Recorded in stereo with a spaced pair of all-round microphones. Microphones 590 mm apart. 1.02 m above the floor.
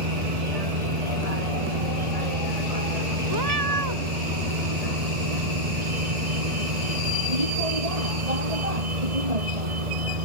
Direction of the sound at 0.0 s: 85° right.